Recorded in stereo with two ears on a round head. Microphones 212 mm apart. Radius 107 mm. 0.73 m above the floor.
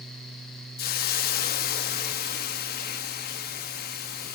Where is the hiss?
40° left (ahead or behind), 1.0 m.